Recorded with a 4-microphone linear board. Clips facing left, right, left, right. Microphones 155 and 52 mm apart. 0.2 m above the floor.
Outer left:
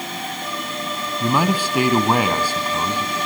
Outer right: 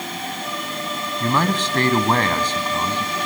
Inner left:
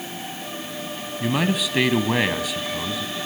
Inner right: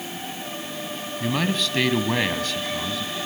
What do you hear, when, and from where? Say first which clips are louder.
1.2 s a man speaking: outer left 1 dB, inner left 2 dB; 10° left (ahead or behind), 1.1 m